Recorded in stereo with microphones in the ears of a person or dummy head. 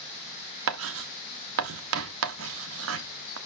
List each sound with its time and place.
0.7 s writing: 75° right (ahead or behind), 1.2 m